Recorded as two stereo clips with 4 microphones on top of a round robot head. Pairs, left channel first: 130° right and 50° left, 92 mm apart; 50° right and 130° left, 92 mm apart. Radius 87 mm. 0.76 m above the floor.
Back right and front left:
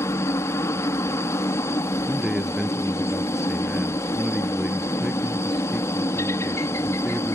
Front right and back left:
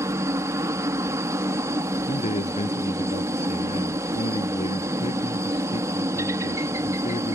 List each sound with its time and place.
0.0 s a helicopter: straight behind
2.1 s a man speaking: 40° right